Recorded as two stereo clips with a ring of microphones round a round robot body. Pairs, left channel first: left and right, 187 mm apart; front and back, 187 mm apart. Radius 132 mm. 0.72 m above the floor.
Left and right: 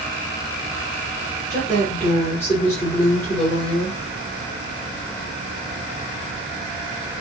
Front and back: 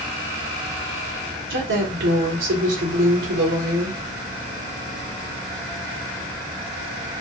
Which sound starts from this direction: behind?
A woman speaking, at 1.5 s.